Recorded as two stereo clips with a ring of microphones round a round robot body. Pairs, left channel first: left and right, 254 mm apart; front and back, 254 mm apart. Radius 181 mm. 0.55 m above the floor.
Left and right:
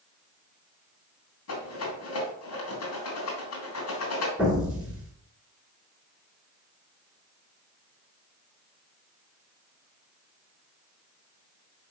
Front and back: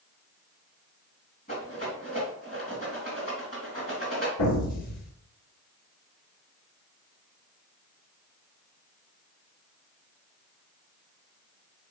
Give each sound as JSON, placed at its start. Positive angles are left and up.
{"t": 1.5, "sound": "a rattle", "azimuth_deg": 70, "distance_m": 3.0}
{"t": 4.4, "sound": "an explosion", "azimuth_deg": -5, "distance_m": 3.5}